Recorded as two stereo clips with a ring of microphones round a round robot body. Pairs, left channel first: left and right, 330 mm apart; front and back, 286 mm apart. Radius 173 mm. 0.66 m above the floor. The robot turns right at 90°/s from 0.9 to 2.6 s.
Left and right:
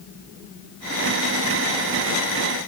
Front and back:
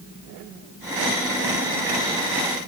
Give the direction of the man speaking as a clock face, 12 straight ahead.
I don't hear a man speaking.